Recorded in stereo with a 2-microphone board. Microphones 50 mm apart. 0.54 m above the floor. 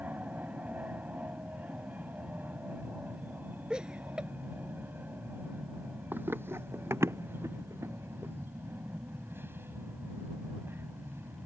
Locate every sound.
0.0 s an aircraft: 30° right (ahead or behind); by 11.5 s 50° right (ahead or behind)
3.7 s laughter: 20° right (ahead or behind)
6.1 s running footsteps: 45° right (ahead or behind); by 8.3 s 75° right (ahead or behind)